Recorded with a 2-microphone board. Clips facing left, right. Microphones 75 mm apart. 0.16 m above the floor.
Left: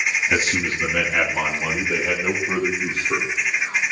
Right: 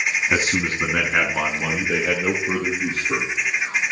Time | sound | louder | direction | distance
0.3 | a man speaking | even | 30° right (ahead or behind) | 1.4 m